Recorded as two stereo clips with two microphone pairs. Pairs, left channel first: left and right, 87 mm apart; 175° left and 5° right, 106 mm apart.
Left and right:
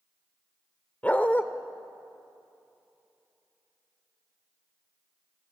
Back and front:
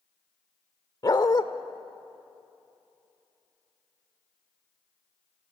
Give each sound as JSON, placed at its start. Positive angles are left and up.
{"t": 1.0, "sound": "a dog barking", "azimuth_deg": 150, "distance_m": 0.7}